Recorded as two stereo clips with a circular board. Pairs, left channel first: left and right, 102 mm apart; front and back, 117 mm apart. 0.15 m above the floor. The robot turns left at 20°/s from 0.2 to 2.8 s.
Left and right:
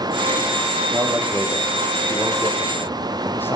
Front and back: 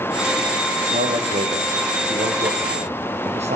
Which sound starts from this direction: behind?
A man speaking, at 0.9 s.